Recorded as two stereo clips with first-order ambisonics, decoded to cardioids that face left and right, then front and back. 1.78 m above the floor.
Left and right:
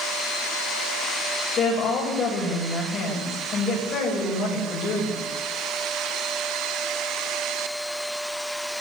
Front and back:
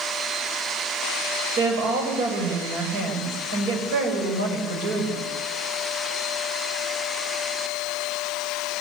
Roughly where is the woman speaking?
Behind left.